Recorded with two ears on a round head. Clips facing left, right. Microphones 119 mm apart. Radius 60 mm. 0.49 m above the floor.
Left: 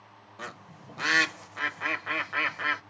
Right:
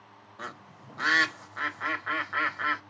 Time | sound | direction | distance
0.4 | a bird | 20° left (ahead or behind) | 0.6 m